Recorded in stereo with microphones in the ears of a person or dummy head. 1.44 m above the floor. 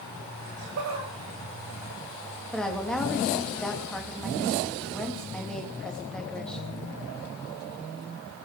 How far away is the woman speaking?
About 2 m.